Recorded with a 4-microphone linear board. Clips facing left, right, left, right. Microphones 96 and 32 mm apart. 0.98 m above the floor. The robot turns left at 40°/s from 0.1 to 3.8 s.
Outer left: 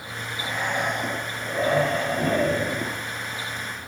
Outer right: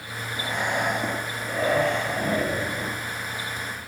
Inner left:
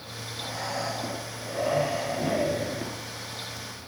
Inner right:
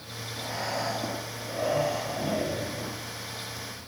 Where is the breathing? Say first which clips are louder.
Outer right 1 dB, inner right 1 dB; 155° right, 3 m; by 3.0 s 100° left, 3 m.